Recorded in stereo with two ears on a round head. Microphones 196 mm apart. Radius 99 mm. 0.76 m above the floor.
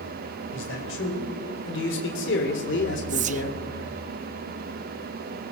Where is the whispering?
35° right (ahead or behind), 0.7 m.